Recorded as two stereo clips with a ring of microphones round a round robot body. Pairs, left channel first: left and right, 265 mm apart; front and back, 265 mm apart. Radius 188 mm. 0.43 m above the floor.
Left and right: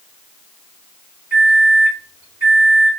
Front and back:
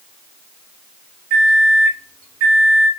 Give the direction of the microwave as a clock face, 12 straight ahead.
6 o'clock.